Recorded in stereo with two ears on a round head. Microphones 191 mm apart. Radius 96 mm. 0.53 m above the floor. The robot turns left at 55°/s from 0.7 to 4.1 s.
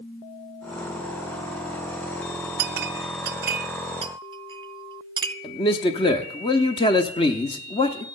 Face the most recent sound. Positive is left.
turn(degrees=25)  # may be behind; listen again after turning